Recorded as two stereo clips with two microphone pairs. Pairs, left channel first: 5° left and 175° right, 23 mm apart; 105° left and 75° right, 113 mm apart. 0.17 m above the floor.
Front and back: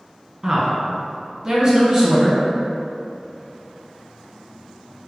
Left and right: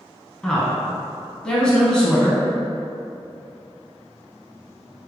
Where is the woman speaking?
175° right, 1.1 m.